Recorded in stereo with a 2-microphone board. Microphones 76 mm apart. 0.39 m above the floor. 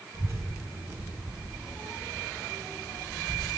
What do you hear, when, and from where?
0.1 s a child speaking: 30° right (ahead or behind), 3 m; by 3.6 s 55° left (ahead or behind), 1.4 m